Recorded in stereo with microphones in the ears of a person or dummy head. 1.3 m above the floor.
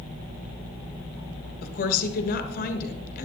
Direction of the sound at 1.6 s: 55° left (ahead or behind).